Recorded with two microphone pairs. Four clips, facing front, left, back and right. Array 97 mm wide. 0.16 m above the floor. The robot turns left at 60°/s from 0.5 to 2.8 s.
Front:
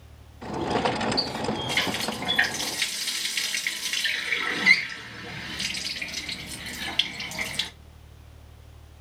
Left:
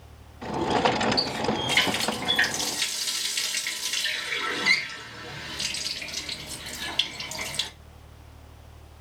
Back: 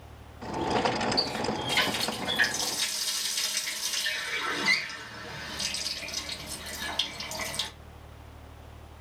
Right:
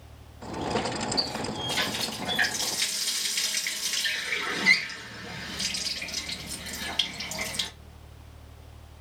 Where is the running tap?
100° left, 1.9 m; by 7.7 s straight ahead, 1.9 m.